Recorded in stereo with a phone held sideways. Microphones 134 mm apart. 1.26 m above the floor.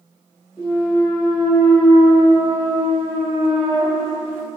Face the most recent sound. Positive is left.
turn(degrees=-15)  # may be behind; listen again after turning